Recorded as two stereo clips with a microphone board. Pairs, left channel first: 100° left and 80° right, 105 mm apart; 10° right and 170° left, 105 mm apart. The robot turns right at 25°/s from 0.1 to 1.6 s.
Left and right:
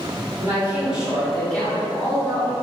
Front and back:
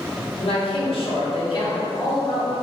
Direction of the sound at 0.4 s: 15° right.